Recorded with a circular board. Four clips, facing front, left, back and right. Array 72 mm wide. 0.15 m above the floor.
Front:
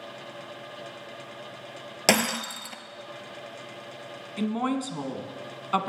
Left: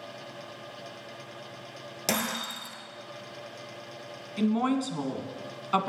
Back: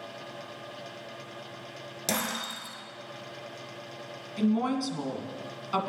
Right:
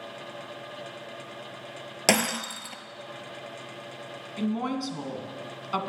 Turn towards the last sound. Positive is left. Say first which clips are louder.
# left 3 dB, back 1 dB
turn(degrees=35)